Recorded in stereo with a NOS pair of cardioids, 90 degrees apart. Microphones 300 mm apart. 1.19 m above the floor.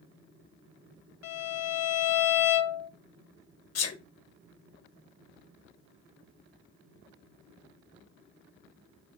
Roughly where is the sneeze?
Ahead left.